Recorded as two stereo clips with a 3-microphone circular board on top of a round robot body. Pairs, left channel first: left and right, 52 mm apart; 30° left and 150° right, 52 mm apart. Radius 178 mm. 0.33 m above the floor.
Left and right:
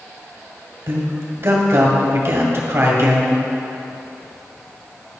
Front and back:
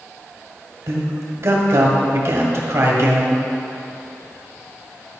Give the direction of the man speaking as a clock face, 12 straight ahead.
4 o'clock.